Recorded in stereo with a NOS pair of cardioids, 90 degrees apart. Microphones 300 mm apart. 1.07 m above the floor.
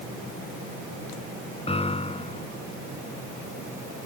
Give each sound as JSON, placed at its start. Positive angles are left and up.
{"t": 1.7, "sound": "a piano", "azimuth_deg": 20}